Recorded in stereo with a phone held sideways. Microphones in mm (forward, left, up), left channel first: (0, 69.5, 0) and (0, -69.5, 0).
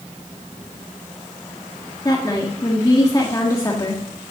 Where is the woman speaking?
25° left (ahead or behind), 1.6 m.